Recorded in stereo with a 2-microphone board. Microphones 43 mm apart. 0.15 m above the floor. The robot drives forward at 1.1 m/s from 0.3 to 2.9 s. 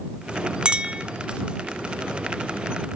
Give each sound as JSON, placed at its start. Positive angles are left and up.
{"t": 0.7, "sound": "a clink", "side_deg": -25, "distance_m": 0.8}